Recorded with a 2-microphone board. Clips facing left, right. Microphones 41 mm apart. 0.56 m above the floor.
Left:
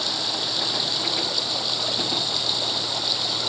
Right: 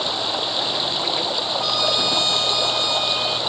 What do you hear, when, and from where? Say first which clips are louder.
0.0 s running water: right 4 dB; 25° right (ahead or behind)
1.6 s a trumpet: right 6 dB; 85° right